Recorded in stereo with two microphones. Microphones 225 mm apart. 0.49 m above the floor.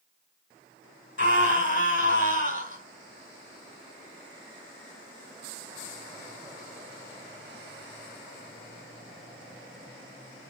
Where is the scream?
55° left (ahead or behind), 2.5 m.